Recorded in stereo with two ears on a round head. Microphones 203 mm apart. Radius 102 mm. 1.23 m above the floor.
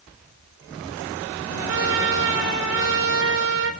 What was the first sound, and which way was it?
A trumpet, 60° right (ahead or behind).